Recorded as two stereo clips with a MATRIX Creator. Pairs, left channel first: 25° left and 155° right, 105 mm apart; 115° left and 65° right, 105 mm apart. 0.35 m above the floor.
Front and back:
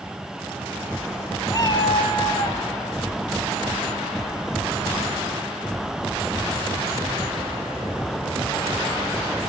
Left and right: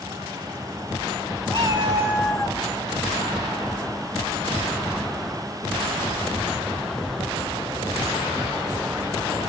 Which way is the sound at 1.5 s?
30° right.